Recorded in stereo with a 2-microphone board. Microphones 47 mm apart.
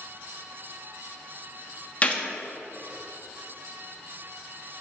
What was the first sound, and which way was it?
A gunshot, 25° left (ahead or behind).